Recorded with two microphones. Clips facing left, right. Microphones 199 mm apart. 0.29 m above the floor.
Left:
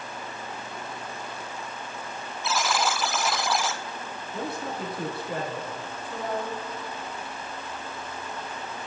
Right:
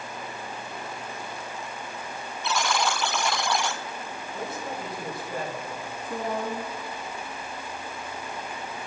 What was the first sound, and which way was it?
A buzzer, centre (ahead or behind).